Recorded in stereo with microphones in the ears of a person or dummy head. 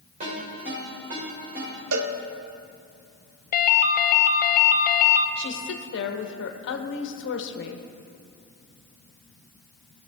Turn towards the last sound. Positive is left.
turn(degrees=60)  # may be behind; listen again after turning